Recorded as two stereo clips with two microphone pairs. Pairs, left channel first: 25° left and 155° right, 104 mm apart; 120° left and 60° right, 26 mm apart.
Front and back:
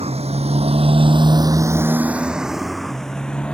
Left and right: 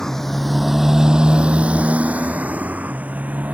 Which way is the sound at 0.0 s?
165° right.